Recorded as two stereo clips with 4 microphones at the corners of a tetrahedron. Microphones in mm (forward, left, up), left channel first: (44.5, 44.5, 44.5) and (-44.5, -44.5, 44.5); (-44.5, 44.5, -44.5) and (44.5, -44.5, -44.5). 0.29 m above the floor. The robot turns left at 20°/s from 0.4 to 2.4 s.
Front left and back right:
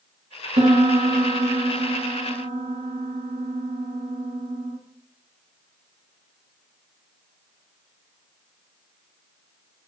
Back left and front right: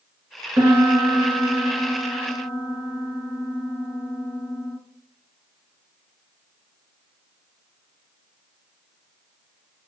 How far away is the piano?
About 0.6 m.